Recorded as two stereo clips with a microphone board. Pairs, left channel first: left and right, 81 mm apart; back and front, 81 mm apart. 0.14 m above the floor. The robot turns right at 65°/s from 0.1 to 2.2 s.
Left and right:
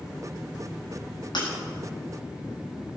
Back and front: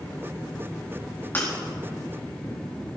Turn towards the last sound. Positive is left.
turn(degrees=170)